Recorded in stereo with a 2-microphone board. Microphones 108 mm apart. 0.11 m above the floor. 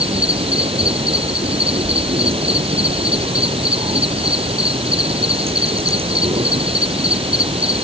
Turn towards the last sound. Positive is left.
turn(degrees=-60)  # may be behind; listen again after turning